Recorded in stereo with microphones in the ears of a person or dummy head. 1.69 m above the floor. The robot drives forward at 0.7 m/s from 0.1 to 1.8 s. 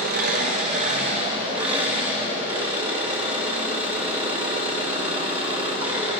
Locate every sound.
0.0 s an engine running: 55° right (ahead or behind), 1.3 m; by 6.2 s 30° right (ahead or behind), 2.0 m